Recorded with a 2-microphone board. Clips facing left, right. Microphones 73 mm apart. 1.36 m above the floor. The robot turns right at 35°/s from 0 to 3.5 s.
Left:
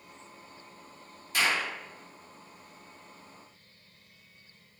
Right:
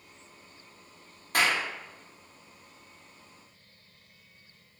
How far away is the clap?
About 1.5 m.